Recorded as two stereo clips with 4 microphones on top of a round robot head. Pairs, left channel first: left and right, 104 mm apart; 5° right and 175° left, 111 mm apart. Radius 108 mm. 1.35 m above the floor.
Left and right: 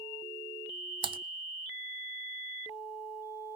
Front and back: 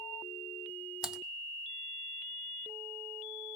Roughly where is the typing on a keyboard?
Right.